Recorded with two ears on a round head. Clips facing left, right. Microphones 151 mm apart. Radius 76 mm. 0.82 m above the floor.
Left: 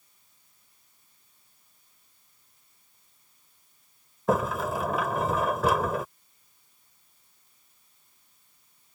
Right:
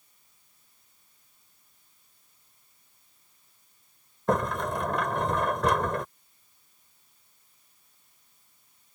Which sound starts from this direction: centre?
A sliding door, at 4.3 s.